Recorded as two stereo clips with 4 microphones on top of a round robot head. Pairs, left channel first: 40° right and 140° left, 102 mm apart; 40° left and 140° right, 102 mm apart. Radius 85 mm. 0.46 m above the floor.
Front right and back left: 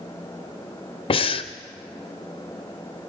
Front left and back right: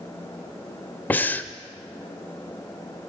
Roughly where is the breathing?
Ahead right.